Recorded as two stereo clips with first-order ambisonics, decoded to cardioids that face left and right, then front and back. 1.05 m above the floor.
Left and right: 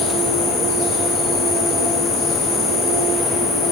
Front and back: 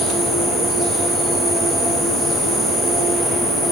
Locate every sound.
0.0 s an insect: 100° left, 6 m